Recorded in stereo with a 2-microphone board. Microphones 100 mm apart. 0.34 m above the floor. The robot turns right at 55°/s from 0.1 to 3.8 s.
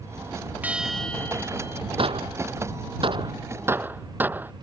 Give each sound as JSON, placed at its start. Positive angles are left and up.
{"t": 0.6, "sound": "a bell", "azimuth_deg": -15}
{"t": 2.0, "sound": "a gunshot", "side_deg": -60}